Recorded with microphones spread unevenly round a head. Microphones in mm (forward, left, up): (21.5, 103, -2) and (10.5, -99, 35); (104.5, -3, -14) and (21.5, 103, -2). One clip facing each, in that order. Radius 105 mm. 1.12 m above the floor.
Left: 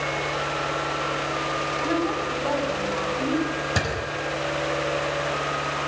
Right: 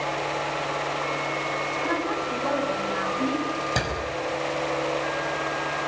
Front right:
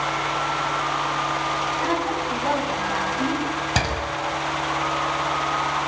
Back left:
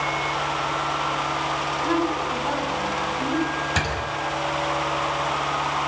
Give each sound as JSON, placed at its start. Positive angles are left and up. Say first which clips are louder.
{"t": 1.8, "sound": "a woman speaking", "louder": "left 4 dB, back left 3 dB", "azimuth_deg": -15, "distance_m": 8.5}
{"t": 3.8, "sound": "a door slam", "louder": "left 1 dB, front right 2 dB", "azimuth_deg": 0, "distance_m": 5.0}